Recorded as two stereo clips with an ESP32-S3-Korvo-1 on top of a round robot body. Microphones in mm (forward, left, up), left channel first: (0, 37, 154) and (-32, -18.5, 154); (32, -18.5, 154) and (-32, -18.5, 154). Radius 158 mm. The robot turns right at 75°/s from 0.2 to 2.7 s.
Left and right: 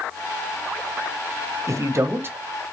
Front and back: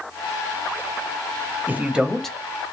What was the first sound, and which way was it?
A man speaking, 125° right.